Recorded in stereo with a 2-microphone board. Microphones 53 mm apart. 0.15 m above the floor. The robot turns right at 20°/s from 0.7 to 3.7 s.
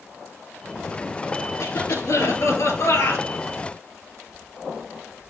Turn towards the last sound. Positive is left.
turn(degrees=125)